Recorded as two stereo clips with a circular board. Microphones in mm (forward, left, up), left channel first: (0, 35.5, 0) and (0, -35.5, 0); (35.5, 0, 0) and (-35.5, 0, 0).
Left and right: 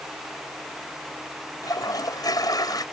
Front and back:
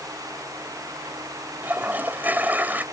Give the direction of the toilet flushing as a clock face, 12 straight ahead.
8 o'clock.